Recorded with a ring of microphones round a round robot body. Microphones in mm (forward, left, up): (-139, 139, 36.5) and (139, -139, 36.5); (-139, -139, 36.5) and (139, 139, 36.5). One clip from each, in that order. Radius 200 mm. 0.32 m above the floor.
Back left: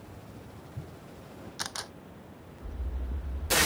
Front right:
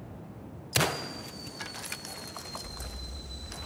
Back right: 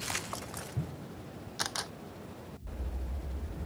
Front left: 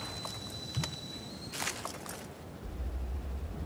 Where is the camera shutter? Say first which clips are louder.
Back left 4 dB, back right 2 dB; 165° right.